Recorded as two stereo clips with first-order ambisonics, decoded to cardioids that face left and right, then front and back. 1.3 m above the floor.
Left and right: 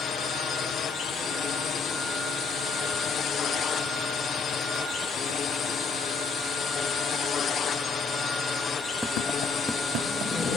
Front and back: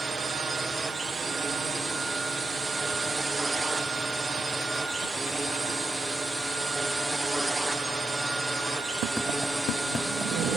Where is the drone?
115° left; by 10.6 s 100° left.